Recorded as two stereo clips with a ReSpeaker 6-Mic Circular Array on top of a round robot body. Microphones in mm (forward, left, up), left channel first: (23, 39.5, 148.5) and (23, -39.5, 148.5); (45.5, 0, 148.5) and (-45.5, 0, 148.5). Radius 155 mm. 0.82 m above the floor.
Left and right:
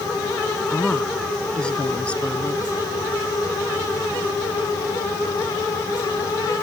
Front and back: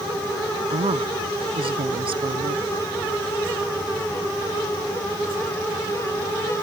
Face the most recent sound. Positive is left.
turn(degrees=165)